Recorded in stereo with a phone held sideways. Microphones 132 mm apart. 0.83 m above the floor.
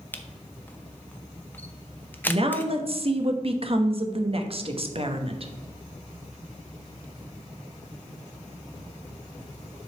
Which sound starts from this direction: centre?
A camera shutter, at 0.1 s.